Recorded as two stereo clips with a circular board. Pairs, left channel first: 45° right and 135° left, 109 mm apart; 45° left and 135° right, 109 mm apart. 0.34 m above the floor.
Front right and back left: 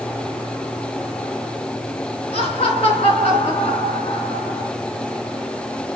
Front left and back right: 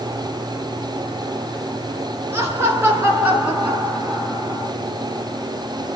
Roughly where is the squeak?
No squeak in this recording.